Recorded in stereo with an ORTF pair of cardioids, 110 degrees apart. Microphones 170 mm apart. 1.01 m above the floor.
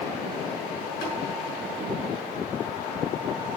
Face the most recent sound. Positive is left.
turn(degrees=65)